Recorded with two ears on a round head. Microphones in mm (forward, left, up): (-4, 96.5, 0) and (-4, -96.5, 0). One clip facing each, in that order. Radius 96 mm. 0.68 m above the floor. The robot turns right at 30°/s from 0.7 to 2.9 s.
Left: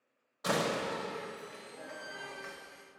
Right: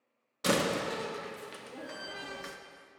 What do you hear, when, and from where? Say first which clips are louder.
0.4 s a door slam: right 3 dB; 35° right (ahead or behind), 0.7 m; by 2.6 s 50° right (ahead or behind), 0.7 m